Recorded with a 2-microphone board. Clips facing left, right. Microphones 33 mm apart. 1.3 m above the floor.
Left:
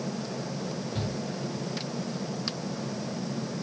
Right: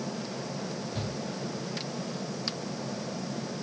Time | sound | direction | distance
0.9 | a shout | 10° left (ahead or behind) | 8.5 m